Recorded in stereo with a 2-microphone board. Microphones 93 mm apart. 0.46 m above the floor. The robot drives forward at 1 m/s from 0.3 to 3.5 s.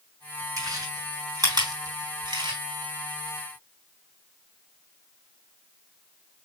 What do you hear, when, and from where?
0.6 s chewing: 35° right (ahead or behind), 5 m; by 2.6 s 55° right (ahead or behind), 3.5 m